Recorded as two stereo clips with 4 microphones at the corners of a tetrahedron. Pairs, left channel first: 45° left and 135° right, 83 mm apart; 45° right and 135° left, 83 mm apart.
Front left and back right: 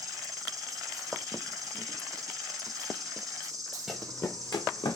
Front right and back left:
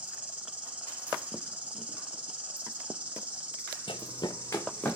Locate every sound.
0.0 s an insect: 160° right, 1.2 m
3.9 s running footsteps: 45° right, 0.5 m; by 5.0 s 30° left, 1.0 m